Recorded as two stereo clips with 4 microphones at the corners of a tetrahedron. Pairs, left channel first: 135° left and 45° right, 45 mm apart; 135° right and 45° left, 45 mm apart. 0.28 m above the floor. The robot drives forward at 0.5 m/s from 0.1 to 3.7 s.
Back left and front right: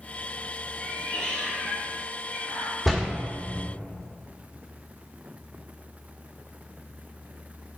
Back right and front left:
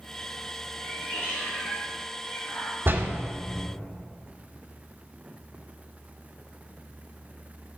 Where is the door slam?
60° left, 1.4 m; by 3.1 s 65° left, 1.3 m.